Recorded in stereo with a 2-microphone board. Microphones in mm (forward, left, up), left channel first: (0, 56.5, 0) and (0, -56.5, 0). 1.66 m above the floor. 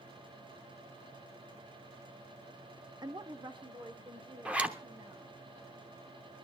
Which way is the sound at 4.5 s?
10° right (ahead or behind).